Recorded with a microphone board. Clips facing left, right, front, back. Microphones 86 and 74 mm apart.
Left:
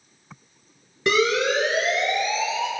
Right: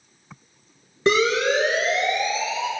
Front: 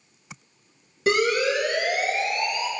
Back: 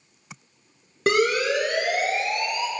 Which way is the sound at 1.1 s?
150° right.